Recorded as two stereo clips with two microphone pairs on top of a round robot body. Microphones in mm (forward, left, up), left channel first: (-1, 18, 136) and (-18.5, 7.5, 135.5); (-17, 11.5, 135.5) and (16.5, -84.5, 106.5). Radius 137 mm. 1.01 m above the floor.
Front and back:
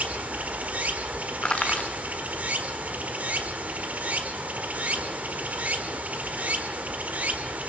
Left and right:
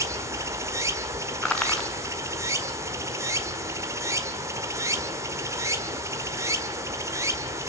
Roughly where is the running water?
Behind right.